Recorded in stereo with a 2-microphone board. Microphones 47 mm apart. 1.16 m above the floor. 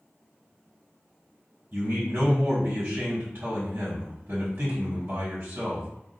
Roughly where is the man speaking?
Right.